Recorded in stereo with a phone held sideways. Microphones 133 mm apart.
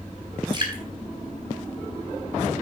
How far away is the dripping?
About 4.5 m.